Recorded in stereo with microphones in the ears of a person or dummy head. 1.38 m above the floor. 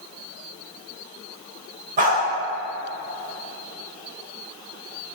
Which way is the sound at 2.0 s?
40° right (ahead or behind).